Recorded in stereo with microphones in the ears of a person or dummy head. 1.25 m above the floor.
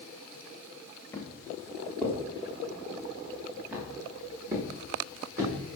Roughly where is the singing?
No singing in this recording.